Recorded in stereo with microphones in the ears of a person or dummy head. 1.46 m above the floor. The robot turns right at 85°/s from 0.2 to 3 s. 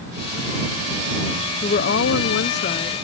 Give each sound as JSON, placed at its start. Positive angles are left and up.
{"t": 1.6, "sound": "a woman speaking", "azimuth_deg": 35}